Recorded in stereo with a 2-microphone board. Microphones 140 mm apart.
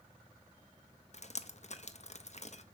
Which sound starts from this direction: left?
Dripping, at 1.1 s.